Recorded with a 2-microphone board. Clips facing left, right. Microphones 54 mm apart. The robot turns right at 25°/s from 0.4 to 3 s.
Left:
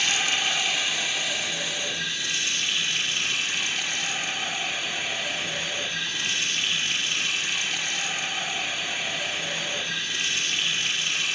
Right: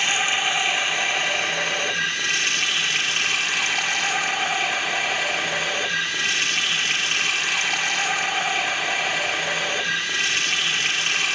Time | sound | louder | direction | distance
0.0 | running water | right 3 dB | 160° right | 2 m